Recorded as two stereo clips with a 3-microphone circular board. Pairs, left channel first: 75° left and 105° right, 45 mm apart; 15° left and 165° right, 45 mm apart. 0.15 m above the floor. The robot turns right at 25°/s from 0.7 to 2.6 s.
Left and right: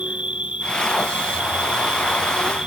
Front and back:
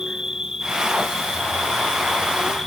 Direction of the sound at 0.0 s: 110° right.